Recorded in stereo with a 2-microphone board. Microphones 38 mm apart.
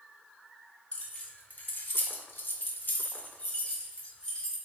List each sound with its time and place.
0.9 s keys jangling: 40° left (ahead or behind), 1.1 m; by 4.5 s 20° left (ahead or behind), 1.6 m